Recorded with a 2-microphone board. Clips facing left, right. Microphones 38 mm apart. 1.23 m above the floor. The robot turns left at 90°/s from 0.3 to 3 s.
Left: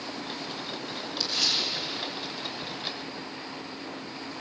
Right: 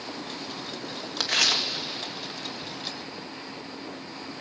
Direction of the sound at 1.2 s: 60° right (ahead or behind).